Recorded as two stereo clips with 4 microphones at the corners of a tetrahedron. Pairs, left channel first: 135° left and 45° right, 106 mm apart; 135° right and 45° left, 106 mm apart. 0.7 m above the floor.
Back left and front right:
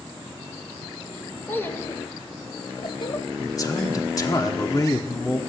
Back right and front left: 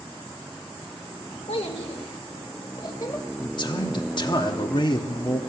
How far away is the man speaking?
About 1.0 m.